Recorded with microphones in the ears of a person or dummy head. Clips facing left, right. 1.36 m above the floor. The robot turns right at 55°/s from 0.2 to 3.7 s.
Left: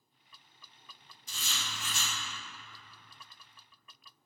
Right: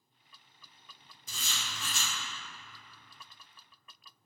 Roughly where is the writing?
Right.